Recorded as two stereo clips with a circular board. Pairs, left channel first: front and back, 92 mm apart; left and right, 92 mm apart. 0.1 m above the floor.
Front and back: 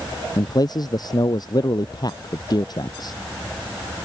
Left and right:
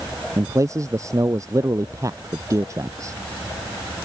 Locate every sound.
0.4 s a man speaking: 35° right